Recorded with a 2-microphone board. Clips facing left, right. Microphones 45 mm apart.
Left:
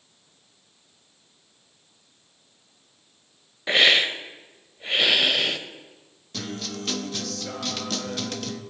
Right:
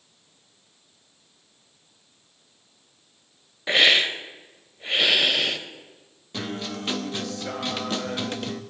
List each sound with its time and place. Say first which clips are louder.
3.7 s a hiss: even; centre (ahead or behind), 0.8 m
6.3 s a guitar: right 2 dB; 20° right (ahead or behind), 0.6 m